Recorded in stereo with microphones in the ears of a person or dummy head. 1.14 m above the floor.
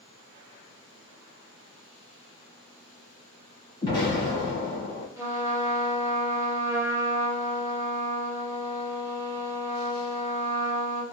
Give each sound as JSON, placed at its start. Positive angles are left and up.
{"t": 3.8, "sound": "an explosion", "side_deg": 20, "distance_m": 1.0}
{"t": 5.2, "sound": "a trumpet", "side_deg": -10, "distance_m": 1.2}